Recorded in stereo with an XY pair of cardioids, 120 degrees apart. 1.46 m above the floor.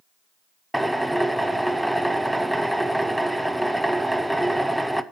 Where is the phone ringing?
I don't hear a phone ringing.